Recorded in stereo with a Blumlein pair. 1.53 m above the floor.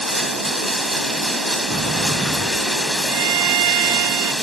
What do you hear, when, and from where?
0.0 s running water: 5° right
1.7 s a sliding door: 10° right
3.1 s a violin: 50° right